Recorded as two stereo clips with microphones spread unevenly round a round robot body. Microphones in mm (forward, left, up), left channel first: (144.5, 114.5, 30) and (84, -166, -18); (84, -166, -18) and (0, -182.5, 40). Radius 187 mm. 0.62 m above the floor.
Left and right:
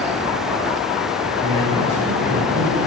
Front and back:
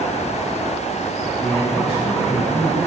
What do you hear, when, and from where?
1.4 s a man speaking: straight behind, 3 m